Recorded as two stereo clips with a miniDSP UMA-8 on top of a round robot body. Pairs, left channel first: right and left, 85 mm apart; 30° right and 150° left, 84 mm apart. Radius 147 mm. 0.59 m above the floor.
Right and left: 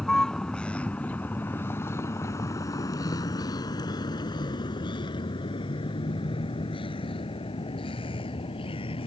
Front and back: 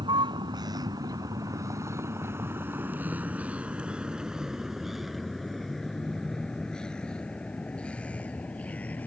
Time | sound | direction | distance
0.0 | a vehicle | 175° right | ?